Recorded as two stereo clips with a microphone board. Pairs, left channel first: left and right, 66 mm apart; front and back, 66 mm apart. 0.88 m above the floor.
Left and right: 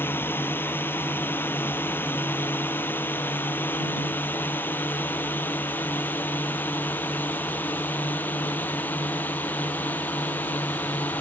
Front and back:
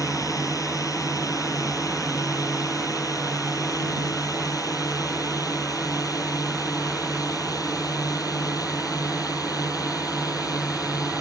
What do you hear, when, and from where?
0.0 s a drone: 35° left; by 11.2 s 25° left